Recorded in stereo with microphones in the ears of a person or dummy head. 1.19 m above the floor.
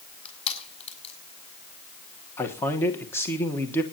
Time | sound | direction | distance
0.2 | crushing | 35° left (ahead or behind) | 7 m
2.4 | a man speaking | 15° left (ahead or behind) | 1.0 m